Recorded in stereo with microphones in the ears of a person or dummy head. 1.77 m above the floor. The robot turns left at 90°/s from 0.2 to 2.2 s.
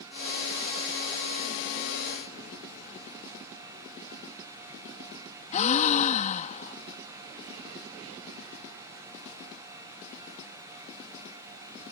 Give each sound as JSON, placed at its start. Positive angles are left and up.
{"t": 5.5, "sound": "a gasp", "side_deg": 40}